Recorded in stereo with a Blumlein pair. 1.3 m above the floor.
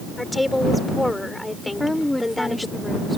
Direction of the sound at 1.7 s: 5° left.